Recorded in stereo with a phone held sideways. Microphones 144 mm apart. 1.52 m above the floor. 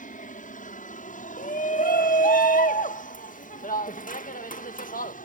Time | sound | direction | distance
0.0 | an aircraft | 70° left (ahead or behind) | ?
1.4 | a shout | 80° left | ?